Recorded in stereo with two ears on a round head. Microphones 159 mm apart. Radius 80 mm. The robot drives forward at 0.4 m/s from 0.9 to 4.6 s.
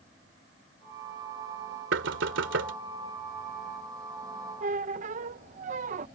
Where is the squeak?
45° right (ahead or behind).